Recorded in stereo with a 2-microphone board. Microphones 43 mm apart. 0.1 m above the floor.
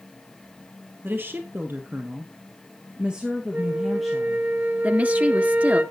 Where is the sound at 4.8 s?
35° right (ahead or behind), 1.7 m.